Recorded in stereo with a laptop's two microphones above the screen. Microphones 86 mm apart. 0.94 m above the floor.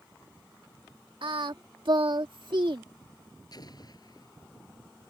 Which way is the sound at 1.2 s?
70° right (ahead or behind).